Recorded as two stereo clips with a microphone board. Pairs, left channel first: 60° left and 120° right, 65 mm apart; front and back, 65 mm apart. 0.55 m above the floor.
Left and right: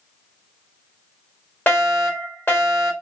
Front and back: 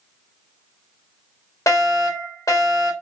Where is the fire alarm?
5° left, 3.5 m.